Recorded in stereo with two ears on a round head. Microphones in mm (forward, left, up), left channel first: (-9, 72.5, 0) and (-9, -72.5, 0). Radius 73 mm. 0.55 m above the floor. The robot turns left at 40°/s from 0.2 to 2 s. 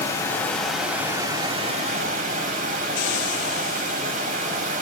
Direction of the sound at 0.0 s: 20° left.